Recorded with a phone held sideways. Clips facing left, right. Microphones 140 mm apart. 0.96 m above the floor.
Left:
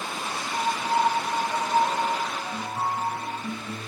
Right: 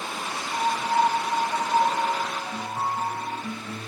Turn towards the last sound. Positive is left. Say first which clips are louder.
# right 1 dB
turn(degrees=-15)  # may be behind; listen again after turning